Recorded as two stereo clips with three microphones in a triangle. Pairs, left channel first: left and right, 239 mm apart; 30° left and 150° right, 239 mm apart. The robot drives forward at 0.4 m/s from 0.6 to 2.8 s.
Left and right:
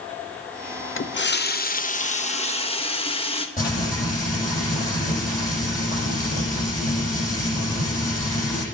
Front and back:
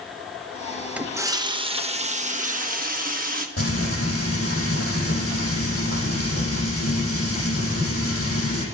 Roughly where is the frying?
Ahead left.